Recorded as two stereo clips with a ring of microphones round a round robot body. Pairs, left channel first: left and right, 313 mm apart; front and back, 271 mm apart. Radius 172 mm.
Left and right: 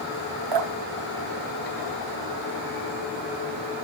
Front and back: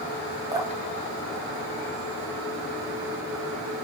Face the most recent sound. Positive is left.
turn(degrees=-100)